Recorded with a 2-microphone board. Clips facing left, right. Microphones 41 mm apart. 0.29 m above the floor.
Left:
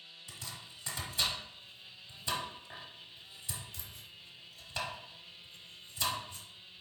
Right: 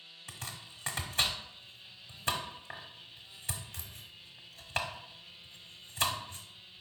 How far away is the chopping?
About 0.8 m.